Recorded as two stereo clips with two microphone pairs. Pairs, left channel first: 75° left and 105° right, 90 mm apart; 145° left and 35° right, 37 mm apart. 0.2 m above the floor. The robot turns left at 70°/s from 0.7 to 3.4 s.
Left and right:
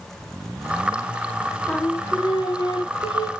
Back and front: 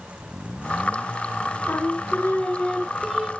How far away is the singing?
About 0.7 m.